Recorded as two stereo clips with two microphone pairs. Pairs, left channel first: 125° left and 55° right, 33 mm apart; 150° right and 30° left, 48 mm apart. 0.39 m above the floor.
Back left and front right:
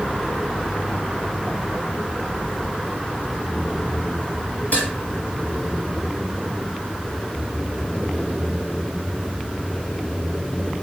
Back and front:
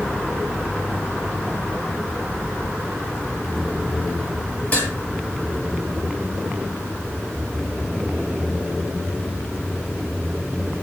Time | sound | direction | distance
4.7 | dishes clattering | 155° left | 6.5 m